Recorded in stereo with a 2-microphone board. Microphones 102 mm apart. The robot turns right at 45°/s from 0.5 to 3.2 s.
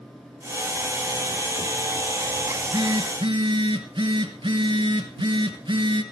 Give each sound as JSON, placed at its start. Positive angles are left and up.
{"t": 2.5, "sound": "a phone buzzing", "azimuth_deg": -150, "distance_m": 2.5}